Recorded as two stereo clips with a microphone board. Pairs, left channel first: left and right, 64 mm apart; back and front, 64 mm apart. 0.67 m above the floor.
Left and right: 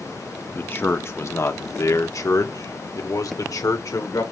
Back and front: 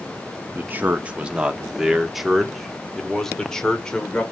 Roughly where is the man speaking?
Ahead left.